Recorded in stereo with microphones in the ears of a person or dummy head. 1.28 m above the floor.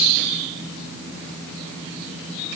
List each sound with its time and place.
Only background noise.